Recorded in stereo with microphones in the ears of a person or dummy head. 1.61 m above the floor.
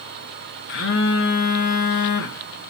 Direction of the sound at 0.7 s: 55° left (ahead or behind).